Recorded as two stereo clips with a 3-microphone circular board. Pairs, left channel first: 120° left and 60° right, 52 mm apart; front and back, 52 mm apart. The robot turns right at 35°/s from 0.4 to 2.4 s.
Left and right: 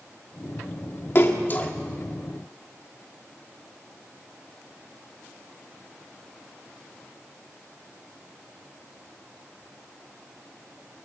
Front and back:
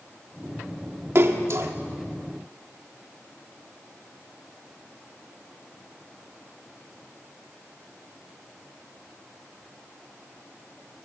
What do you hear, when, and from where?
1.1 s a splash: 155° left, 1.9 m; by 1.7 s 175° left, 1.9 m